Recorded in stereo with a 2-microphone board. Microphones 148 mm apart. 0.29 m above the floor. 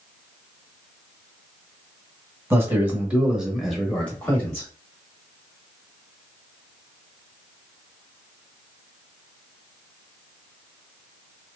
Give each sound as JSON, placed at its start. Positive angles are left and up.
{"t": 2.5, "sound": "a man speaking", "side_deg": -20, "distance_m": 1.2}